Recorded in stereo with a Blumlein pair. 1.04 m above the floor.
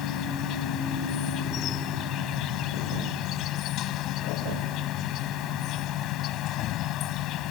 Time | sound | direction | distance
0.0 | an insect | 35° left | ?